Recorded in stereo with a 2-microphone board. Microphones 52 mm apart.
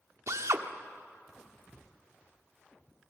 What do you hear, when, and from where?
0.3 s a drill: 70° right (ahead or behind), 1.3 m